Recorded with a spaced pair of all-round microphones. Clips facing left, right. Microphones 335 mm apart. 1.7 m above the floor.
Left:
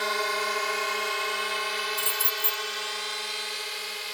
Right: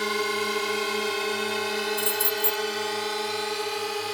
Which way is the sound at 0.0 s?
45° right (ahead or behind).